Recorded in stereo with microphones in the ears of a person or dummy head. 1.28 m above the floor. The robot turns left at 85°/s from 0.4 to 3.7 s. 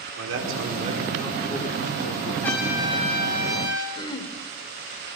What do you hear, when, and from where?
0.2 s a man speaking: 110° right, 5 m; by 2.3 s 90° left, 5 m
2.4 s a trumpet: 10° left, 7 m; by 3.9 s 95° right, 7 m
4.0 s throat clearing: 25° left (ahead or behind), 2.5 m